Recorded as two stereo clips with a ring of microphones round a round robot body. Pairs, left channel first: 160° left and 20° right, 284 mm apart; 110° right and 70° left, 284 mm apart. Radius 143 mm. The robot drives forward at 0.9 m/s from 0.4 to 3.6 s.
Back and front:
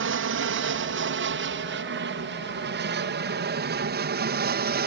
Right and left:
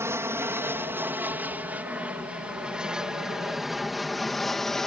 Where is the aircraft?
10° right; by 4.9 s 25° right.